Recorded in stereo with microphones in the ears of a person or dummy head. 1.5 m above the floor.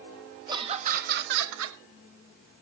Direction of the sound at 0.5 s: 20° right (ahead or behind).